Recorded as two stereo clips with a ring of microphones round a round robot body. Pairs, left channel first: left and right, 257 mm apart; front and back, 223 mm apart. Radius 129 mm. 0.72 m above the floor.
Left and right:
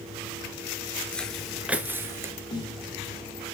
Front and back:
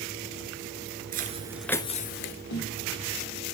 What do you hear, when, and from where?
1.1 s footsteps: 175° left, 0.8 m; by 2.3 s 15° right, 0.9 m
2.5 s a snare drum: 15° left, 3 m